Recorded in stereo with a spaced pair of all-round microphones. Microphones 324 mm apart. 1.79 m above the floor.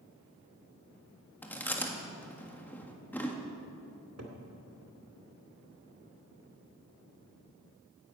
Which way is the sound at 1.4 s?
5° left (ahead or behind).